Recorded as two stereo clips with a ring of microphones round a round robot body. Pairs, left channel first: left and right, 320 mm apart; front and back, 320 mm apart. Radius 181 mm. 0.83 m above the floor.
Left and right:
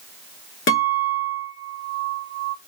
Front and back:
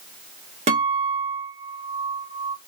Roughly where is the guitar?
Behind left.